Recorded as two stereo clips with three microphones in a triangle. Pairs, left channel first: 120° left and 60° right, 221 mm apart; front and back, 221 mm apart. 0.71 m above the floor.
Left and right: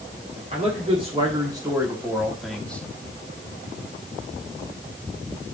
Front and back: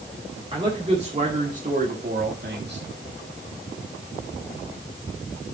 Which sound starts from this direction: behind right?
A man speaking, at 0.5 s.